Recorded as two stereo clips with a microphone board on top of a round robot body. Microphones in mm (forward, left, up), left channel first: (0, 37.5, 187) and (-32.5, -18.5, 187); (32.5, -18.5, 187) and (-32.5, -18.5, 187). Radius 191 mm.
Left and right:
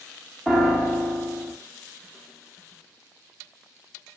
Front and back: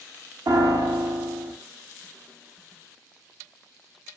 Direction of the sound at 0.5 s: 145° left.